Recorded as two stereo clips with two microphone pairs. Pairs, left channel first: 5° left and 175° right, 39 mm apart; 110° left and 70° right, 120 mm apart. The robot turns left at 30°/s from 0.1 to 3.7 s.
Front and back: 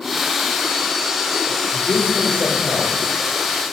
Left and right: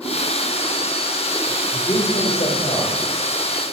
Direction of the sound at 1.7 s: 155° left.